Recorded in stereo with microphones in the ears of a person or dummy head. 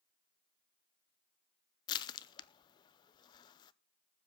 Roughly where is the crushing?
Left.